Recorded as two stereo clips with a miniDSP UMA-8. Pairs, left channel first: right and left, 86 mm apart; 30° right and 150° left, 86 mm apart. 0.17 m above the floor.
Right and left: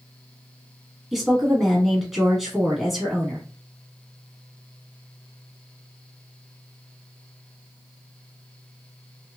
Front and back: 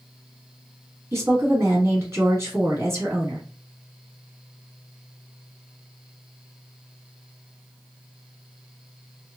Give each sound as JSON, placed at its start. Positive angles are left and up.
{"t": 1.1, "sound": "a woman speaking", "azimuth_deg": 175, "distance_m": 1.2}